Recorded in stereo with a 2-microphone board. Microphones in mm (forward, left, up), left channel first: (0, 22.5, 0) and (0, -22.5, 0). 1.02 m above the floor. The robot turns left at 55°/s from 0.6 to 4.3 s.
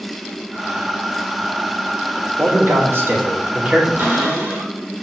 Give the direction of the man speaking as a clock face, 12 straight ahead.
3 o'clock.